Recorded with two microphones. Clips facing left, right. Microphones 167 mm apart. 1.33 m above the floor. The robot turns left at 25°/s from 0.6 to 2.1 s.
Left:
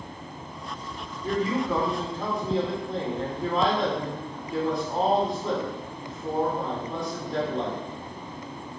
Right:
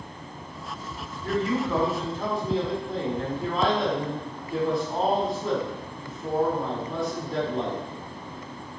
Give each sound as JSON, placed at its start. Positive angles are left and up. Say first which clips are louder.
{"t": 1.2, "sound": "a man speaking", "louder": "even", "side_deg": 20, "distance_m": 4.0}